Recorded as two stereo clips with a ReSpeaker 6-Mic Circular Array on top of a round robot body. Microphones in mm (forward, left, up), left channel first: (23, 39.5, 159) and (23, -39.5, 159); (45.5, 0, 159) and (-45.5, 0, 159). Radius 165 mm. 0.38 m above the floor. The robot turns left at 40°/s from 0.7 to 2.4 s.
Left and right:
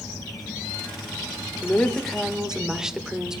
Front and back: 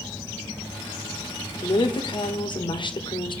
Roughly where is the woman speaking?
Ahead left.